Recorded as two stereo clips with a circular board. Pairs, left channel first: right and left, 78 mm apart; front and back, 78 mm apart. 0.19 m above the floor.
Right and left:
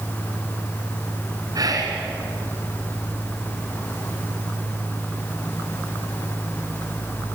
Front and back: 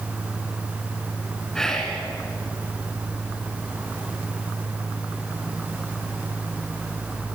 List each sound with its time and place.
1.6 s whispering: 80° left, 2.5 m